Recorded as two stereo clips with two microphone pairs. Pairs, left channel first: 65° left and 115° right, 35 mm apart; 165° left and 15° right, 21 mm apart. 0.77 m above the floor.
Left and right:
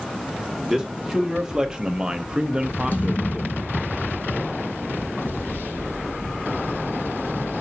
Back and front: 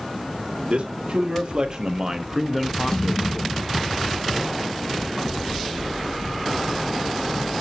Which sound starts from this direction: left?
A thud, at 2.9 s.